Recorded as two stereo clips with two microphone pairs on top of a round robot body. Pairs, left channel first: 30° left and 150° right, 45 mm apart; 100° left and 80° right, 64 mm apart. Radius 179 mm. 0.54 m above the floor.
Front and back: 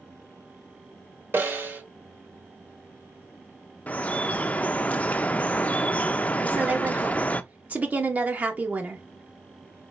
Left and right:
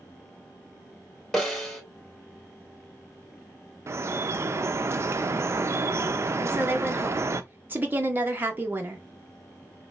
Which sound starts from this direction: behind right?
A woman speaking, at 6.4 s.